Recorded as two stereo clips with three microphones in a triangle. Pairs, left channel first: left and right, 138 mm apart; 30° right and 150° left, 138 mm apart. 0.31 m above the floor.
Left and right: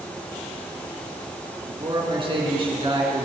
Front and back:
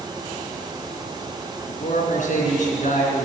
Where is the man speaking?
40° right, 3.5 m.